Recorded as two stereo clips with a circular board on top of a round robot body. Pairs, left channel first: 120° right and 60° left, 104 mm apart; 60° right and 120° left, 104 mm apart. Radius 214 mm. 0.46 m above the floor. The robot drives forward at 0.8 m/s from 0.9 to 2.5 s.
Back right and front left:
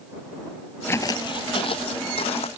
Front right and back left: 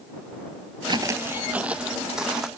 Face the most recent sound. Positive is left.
turn(degrees=-155)